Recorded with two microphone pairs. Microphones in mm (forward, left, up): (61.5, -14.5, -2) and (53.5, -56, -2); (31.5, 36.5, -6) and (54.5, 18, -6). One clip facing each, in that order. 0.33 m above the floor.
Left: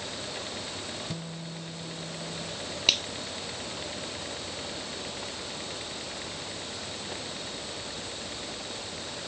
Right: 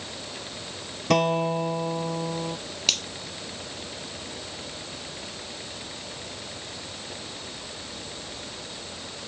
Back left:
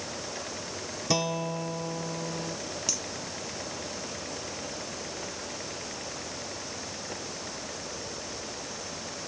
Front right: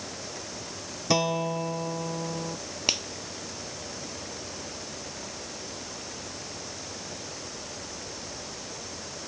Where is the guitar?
115° right.